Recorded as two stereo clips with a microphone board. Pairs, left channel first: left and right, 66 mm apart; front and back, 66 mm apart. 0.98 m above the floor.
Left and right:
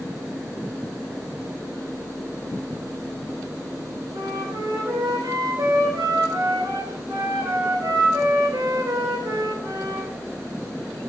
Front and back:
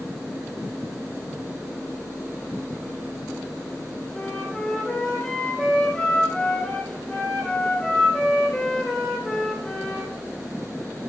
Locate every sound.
4.1 s a flute: 80° right, 4 m